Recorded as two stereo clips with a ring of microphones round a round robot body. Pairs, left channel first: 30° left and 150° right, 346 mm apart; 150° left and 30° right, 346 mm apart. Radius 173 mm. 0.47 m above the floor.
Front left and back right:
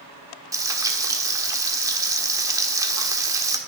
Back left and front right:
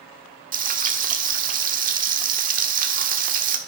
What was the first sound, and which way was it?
Frying, 75° right.